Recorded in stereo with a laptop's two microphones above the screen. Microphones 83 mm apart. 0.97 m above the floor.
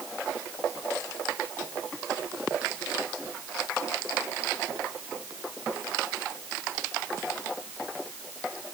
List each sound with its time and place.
Only background noise.